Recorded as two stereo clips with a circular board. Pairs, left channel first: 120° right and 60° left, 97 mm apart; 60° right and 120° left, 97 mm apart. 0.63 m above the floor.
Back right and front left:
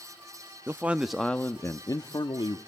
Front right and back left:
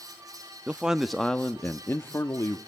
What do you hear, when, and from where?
0.7 s a man speaking: 65° left, 0.6 m; by 2.6 s 110° right, 1.0 m